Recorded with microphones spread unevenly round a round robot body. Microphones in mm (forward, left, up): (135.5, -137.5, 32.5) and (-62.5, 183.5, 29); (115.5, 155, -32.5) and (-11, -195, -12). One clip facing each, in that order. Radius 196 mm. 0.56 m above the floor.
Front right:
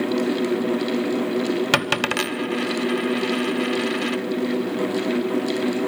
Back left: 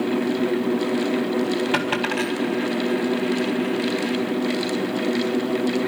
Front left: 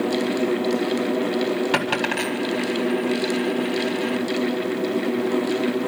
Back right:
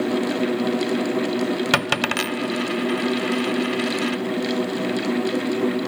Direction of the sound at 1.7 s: 90° right.